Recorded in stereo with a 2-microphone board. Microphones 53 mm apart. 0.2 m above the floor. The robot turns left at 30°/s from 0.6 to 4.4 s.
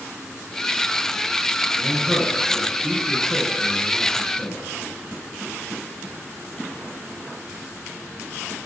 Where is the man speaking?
115° right, 8 m; by 4.6 s 165° left, 8 m.